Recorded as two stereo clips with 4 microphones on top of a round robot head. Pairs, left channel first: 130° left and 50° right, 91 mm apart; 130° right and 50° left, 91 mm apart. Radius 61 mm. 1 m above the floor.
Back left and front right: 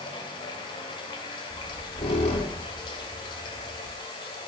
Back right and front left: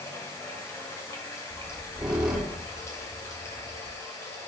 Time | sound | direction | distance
0.0 | running water | 170° left | 2.5 m
1.5 | a squeak | 130° left | 2.5 m